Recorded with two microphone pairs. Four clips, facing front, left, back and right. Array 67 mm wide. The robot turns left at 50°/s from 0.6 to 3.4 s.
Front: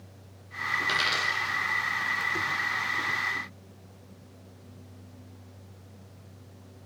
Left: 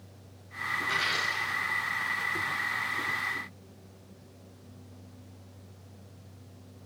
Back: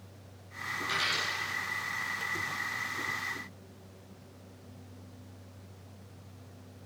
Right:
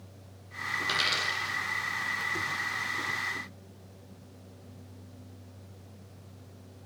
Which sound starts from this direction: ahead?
A dropped coin, at 0.8 s.